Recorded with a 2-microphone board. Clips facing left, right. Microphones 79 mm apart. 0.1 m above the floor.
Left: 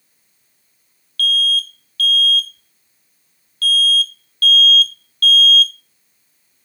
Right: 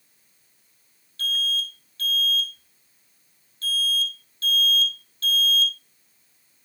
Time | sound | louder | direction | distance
1.2 | an alarm | left 8 dB | 25° right (ahead or behind) | 0.9 m